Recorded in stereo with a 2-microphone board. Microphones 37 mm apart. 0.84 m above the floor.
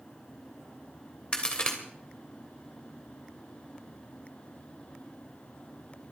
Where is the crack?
30° left (ahead or behind), 3 m.